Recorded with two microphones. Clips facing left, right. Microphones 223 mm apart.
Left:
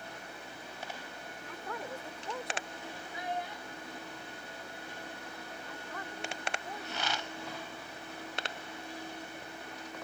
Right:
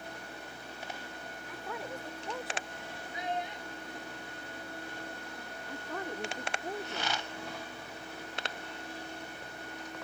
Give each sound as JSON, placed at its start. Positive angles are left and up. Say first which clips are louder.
{"t": 1.5, "sound": "a woman speaking", "louder": "even", "side_deg": -5}
{"t": 3.1, "sound": "a child speaking", "louder": "right 2 dB", "side_deg": -20}
{"t": 5.7, "sound": "a woman speaking", "louder": "right 9 dB", "side_deg": -50}